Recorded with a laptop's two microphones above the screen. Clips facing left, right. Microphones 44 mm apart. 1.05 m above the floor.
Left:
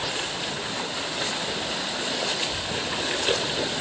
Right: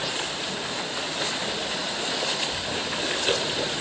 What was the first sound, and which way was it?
Only background noise.